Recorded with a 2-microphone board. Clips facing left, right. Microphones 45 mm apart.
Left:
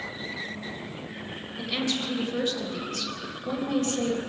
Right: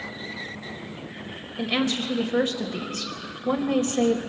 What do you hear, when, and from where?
1.6 s a woman speaking: 35° right (ahead or behind), 3.5 m